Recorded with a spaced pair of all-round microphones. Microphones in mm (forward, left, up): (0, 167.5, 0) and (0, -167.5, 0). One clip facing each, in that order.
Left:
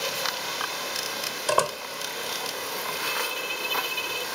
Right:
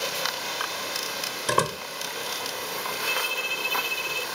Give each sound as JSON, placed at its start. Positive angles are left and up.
{"t": 1.5, "sound": "a door slam", "side_deg": -25}
{"t": 3.1, "sound": "a violin", "side_deg": 60}